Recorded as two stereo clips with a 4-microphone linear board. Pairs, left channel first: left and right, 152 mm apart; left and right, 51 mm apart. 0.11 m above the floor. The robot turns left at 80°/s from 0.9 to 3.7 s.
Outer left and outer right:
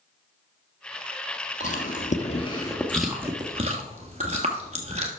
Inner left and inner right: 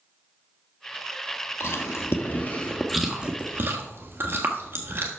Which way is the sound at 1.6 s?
55° left (ahead or behind).